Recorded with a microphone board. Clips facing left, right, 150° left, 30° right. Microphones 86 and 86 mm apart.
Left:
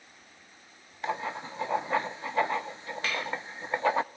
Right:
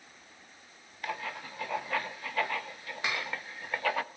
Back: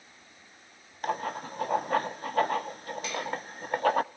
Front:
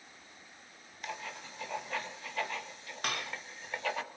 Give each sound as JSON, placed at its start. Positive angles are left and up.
{"t": 1.0, "sound": "writing", "azimuth_deg": 145, "distance_m": 0.5}
{"t": 3.0, "sound": "dishes clattering", "azimuth_deg": -20, "distance_m": 1.5}